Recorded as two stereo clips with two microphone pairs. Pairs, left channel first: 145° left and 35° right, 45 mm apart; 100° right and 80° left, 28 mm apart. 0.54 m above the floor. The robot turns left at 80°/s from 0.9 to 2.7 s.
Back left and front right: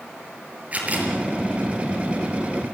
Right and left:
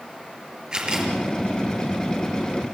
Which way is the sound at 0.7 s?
20° left.